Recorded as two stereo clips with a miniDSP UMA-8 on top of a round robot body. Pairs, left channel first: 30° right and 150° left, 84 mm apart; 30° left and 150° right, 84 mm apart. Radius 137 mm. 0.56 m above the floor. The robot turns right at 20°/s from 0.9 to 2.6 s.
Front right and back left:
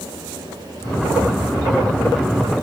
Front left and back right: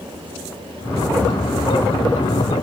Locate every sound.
Only background noise.